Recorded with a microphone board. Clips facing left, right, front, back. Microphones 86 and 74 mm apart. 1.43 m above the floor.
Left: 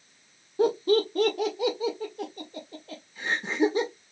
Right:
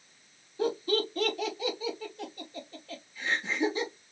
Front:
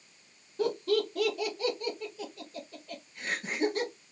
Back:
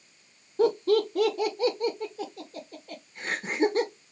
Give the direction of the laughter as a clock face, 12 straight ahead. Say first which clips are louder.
Left 6 dB, back 6 dB; 8 o'clock.